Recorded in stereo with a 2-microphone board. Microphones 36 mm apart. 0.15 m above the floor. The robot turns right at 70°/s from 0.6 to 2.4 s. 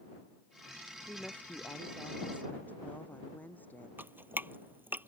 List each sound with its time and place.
1.1 s a woman speaking: 30° left; by 3.9 s 125° left
4.0 s dripping: 75° right (ahead or behind)